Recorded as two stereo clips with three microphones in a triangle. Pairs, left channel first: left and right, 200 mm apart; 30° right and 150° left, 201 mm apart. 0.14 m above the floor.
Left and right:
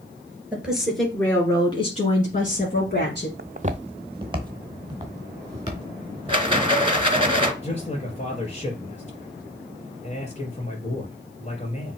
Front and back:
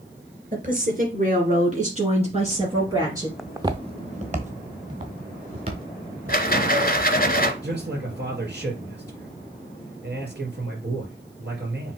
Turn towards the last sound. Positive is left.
turn(degrees=140)